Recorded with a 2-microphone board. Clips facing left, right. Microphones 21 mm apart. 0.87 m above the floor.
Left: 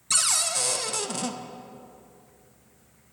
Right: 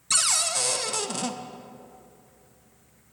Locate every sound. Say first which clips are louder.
0.1 s a cupboard door: right 1 dB; 10° right (ahead or behind), 0.6 m